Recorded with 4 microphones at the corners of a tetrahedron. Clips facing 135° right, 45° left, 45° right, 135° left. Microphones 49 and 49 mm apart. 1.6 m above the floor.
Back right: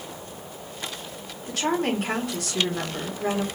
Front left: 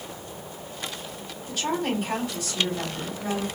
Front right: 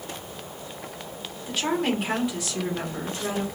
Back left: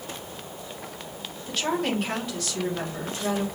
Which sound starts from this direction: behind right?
A woman speaking, at 1.5 s.